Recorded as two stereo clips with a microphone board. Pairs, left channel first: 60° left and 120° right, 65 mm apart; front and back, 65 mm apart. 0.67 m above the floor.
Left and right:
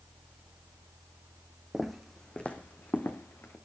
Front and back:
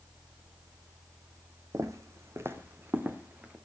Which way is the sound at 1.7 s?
155° left.